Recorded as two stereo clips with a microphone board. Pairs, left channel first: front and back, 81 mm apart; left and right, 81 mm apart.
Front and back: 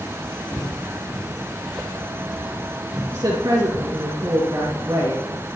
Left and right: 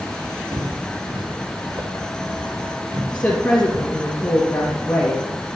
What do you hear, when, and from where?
0.5 s footsteps: 65° right, 2 m; by 4.1 s 120° right, 4 m
3.1 s a woman speaking: 155° left, 2.5 m